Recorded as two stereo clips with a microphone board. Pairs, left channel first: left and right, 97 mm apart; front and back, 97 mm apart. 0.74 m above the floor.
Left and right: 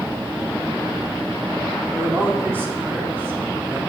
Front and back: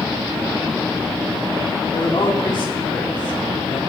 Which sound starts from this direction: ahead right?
A man speaking, at 1.9 s.